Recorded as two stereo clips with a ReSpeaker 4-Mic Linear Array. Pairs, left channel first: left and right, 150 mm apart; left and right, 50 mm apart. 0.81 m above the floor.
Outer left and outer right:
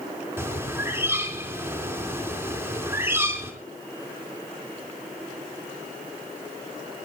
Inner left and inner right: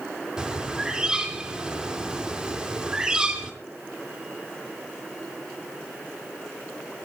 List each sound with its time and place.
0.4 s a bird: 15° right (ahead or behind), 3.5 m